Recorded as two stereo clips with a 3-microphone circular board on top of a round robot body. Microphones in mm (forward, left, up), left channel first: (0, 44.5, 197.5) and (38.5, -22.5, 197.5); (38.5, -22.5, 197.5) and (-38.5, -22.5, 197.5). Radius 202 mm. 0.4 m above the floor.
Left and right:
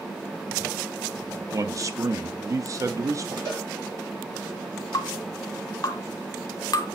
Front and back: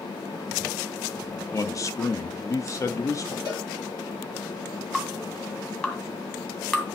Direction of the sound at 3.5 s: 20° right.